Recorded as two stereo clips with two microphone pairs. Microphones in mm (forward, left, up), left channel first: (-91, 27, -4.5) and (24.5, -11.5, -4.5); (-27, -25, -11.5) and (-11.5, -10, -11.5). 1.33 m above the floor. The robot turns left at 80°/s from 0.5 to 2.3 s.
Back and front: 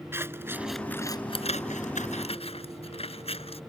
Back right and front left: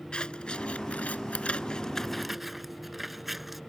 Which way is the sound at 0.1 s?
90° right.